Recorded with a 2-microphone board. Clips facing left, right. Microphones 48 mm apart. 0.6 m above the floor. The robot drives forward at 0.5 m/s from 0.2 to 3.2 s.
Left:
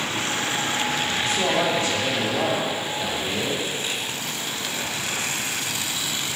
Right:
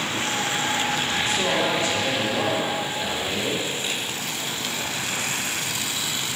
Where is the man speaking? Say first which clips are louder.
Left 2 dB; 50° left (ahead or behind), 1.8 m; by 3.6 s 45° left (ahead or behind), 1.9 m.